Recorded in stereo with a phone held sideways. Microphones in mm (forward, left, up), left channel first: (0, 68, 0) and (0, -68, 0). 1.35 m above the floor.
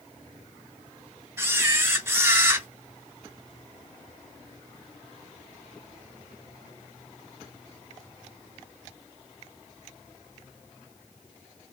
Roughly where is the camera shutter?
Centre.